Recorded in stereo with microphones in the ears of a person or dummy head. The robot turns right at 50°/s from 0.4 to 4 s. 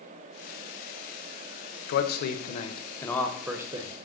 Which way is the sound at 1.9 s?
105° left.